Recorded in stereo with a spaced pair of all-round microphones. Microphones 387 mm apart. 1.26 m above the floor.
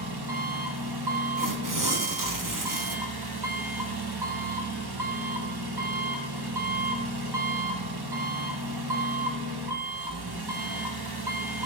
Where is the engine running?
80° right, 1.2 m.